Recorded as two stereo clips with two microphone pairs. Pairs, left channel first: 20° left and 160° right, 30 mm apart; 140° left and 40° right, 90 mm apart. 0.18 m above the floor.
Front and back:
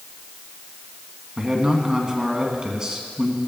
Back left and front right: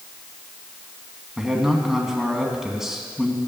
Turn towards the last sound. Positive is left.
turn(degrees=-120)